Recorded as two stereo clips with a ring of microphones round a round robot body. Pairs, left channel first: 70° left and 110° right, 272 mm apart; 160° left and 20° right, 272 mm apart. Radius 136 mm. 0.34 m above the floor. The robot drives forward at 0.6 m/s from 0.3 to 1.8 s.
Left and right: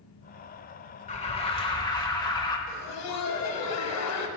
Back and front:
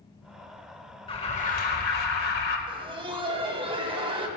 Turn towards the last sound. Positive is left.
turn(degrees=45)